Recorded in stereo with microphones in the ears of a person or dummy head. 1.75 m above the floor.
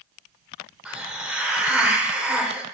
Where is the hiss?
10° right (ahead or behind), 1.0 m.